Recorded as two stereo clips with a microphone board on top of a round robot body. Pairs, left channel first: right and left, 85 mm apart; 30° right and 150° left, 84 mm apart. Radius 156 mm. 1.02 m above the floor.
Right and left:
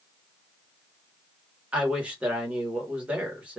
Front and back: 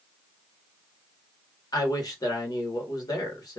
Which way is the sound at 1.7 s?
15° left.